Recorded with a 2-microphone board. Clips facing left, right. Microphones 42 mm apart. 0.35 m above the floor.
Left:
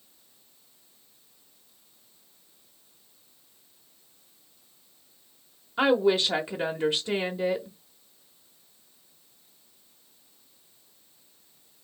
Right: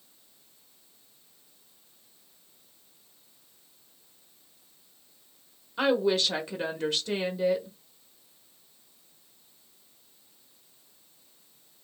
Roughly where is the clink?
I don't hear a clink.